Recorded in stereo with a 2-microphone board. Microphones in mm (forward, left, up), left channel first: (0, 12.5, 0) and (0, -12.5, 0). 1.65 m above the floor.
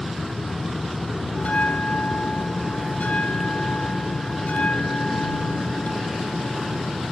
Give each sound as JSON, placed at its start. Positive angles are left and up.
{"t": 1.4, "sound": "a bell", "side_deg": 80}